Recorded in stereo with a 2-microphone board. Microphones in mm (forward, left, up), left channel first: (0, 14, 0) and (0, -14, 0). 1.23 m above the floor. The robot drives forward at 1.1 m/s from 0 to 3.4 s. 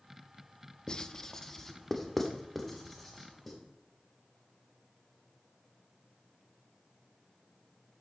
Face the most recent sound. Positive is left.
turn(degrees=5)  # may be behind; listen again after turning